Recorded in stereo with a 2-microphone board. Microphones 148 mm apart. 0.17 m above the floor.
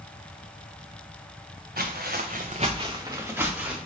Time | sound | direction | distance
1.8 | footsteps | 75° right (ahead or behind) | 0.7 m